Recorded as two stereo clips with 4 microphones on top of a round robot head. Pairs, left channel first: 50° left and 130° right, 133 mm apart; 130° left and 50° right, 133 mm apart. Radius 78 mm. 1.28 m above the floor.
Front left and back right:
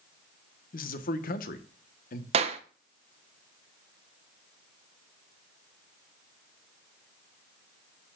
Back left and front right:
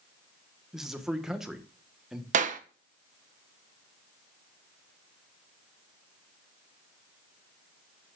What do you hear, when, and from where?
0.7 s a man speaking: 35° left, 1.2 m
2.3 s a clap: 80° right, 0.8 m